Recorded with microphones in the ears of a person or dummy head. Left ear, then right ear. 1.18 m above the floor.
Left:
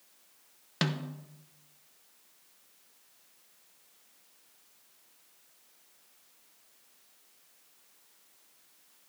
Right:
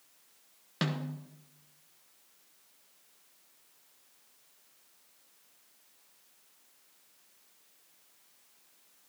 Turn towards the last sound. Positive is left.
turn(degrees=15)  # may be behind; listen again after turning